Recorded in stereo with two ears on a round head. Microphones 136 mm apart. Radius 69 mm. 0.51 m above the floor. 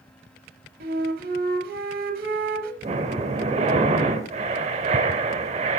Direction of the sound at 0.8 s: 60° right (ahead or behind).